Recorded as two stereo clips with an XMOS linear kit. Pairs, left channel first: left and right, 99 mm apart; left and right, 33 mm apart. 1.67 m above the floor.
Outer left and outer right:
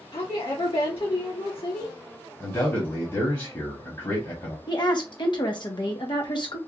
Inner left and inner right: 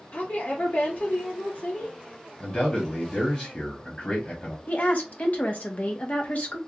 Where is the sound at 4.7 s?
50° left (ahead or behind), 0.9 m.